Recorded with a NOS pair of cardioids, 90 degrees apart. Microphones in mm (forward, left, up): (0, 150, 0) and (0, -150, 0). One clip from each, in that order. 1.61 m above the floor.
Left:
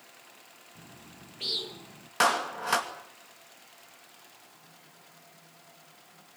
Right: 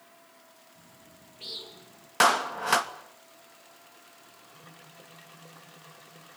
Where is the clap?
20° right, 2.5 m.